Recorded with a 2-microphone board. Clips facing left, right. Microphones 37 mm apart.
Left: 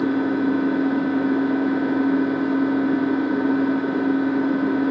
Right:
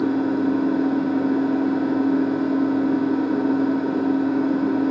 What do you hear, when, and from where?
0.0 s an engine running: 35° left (ahead or behind), 0.8 m